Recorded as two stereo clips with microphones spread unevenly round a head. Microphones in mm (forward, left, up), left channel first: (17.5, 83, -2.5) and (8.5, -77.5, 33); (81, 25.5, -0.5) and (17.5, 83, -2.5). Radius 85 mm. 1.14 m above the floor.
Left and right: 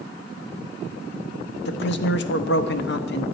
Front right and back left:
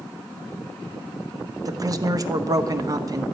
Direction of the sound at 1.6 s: 95° left.